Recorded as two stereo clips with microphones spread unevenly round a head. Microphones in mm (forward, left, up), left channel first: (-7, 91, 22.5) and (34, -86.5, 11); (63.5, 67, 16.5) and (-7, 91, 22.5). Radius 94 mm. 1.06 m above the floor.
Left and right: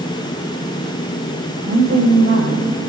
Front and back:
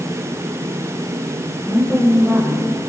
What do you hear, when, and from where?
1.7 s a woman speaking: 110° right, 6.5 m